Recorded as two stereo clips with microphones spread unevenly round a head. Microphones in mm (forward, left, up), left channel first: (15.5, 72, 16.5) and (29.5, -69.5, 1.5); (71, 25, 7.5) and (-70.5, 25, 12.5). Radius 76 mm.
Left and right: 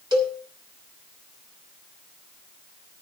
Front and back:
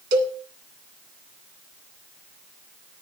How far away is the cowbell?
About 1.6 m.